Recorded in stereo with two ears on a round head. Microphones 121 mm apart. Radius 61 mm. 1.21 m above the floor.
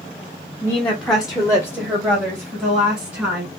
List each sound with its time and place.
0.6 s a woman speaking: 20° left (ahead or behind), 0.6 m; by 3.5 s 20° right (ahead or behind), 2.5 m